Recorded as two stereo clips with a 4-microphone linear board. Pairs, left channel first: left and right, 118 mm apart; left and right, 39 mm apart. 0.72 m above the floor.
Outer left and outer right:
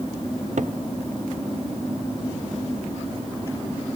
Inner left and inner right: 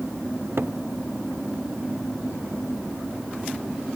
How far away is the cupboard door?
About 0.5 m.